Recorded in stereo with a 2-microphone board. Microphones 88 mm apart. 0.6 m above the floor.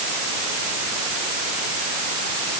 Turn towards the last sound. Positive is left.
No sound to turn to.